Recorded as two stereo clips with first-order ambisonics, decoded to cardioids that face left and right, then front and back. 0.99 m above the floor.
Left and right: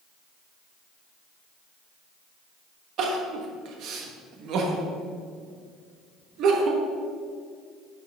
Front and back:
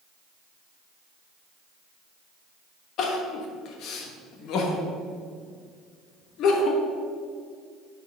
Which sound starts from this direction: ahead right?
Crying, at 3.0 s.